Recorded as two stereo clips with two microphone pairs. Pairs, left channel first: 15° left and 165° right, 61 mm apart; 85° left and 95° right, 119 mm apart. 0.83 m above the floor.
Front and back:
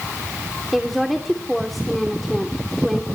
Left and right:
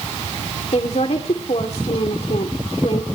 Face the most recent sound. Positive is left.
turn(degrees=105)